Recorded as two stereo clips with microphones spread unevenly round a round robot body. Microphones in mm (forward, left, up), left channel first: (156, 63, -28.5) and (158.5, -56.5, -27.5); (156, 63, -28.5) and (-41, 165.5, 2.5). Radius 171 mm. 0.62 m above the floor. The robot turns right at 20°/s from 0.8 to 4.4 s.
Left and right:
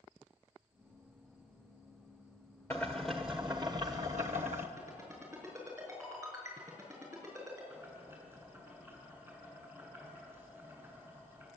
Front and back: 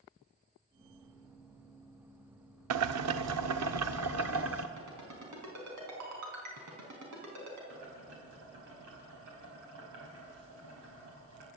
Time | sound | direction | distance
2.7 | boiling | 175° left | 0.7 m
4.8 | a ringtone | 175° right | 4 m
7.7 | boiling | 175° left | 4.5 m